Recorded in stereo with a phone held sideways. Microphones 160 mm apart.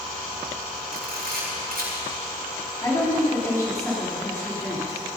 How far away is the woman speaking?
About 4 m.